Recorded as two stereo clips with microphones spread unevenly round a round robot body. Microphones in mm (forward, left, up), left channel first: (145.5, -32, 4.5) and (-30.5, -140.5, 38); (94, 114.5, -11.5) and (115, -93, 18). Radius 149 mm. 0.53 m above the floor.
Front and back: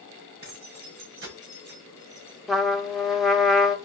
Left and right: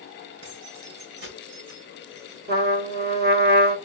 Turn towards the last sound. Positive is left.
turn(degrees=-50)